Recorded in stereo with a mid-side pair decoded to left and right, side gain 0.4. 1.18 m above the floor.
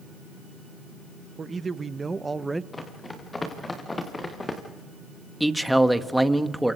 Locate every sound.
1.4 s a man speaking: 40° right, 1.4 m; by 2.6 s 15° right, 0.9 m
2.7 s running footsteps: 25° left, 6 m
5.4 s a man speaking: 5° right, 1.5 m